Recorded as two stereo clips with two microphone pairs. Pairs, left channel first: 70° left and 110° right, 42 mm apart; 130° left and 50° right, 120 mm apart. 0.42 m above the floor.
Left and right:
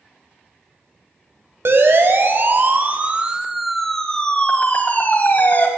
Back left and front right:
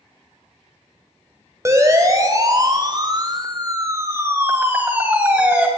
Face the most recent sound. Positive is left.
turn(degrees=35)